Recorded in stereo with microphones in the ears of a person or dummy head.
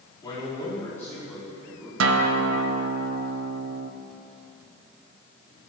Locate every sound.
0.2 s a man speaking: 20° left (ahead or behind), 3.5 m; by 1.9 s 5° right (ahead or behind), 3.5 m
2.0 s a guitar: 85° right, 0.6 m